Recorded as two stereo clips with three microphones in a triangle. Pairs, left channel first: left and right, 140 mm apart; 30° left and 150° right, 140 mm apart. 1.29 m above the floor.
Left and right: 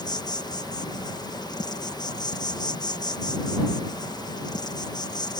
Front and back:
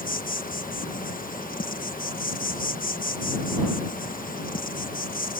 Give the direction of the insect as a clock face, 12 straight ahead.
11 o'clock.